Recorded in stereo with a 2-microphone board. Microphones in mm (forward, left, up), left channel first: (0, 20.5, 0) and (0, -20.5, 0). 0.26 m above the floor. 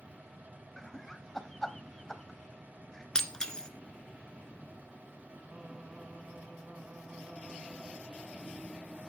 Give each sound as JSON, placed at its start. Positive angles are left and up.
{"t": 0.8, "sound": "laughter", "side_deg": 10, "distance_m": 1.4}
{"t": 3.1, "sound": "breaking glass", "side_deg": 15, "distance_m": 1.2}
{"t": 5.5, "sound": "singing", "side_deg": -30, "distance_m": 2.5}